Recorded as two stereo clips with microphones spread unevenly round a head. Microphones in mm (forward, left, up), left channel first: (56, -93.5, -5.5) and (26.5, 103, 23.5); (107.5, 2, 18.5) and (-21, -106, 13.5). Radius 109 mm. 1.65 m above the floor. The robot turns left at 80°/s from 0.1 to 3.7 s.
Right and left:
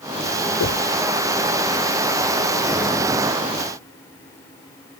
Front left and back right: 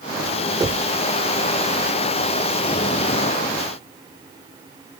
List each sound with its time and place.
0.6 s knocking: 70° right; by 0.9 s 95° right